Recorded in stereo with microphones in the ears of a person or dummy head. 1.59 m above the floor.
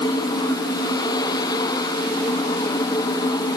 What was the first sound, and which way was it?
Only background noise.